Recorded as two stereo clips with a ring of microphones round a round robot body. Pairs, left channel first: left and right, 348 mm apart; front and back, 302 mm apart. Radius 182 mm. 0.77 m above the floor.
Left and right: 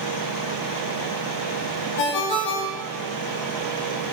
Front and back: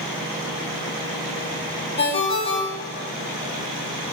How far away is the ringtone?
About 1.0 m.